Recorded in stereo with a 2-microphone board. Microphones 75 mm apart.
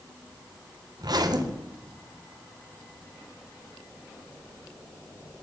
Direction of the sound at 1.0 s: 60° right (ahead or behind).